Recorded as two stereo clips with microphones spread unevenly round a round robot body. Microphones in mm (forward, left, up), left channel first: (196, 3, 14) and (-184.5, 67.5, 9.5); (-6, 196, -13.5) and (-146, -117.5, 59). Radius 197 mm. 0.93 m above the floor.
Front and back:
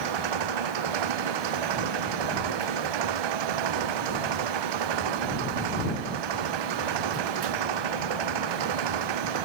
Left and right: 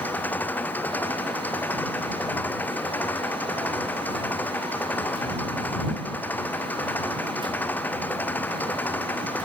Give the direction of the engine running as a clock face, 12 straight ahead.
7 o'clock.